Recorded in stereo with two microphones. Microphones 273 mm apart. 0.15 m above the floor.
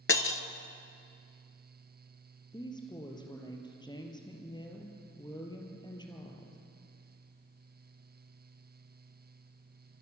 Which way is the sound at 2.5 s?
15° left (ahead or behind).